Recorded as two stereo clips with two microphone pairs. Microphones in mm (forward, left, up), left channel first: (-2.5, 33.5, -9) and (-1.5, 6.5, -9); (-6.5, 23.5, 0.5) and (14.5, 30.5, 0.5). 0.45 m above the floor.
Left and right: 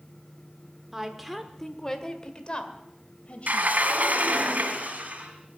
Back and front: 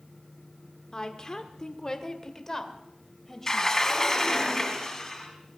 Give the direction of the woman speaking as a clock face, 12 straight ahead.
5 o'clock.